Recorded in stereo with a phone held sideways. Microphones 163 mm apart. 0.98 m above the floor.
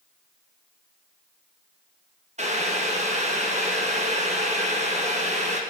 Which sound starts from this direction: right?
Boiling, at 2.4 s.